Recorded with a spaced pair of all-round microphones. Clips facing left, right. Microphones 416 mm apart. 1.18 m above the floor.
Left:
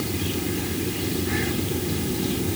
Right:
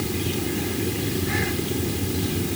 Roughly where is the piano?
No piano in this recording.